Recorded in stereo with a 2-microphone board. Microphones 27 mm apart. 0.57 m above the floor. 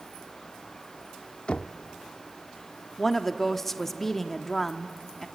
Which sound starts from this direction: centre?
A woman speaking, at 3.0 s.